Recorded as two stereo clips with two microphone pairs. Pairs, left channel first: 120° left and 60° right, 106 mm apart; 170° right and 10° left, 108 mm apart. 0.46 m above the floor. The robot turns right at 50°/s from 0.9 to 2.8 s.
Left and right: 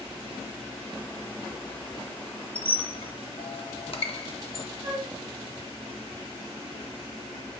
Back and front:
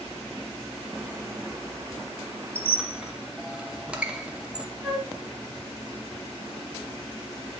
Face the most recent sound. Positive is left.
turn(degrees=-80)